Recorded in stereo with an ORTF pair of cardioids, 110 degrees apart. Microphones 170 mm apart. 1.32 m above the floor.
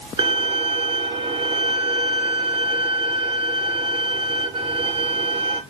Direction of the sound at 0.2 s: 30° right.